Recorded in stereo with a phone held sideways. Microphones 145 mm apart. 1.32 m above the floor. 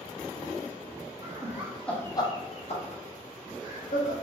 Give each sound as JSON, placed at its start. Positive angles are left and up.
{"t": 1.2, "sound": "laughter", "side_deg": -30, "distance_m": 0.6}